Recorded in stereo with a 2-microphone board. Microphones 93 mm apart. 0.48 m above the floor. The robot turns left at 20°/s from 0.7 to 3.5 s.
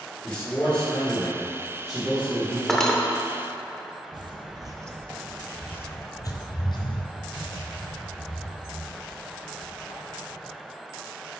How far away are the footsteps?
About 0.9 m.